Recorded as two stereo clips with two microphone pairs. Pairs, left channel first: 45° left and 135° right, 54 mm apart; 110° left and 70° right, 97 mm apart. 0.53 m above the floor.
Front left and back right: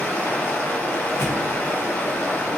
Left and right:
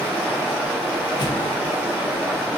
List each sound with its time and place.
0.0 s running water: straight ahead, 1.5 m
1.2 s a thud: 75° left, 0.6 m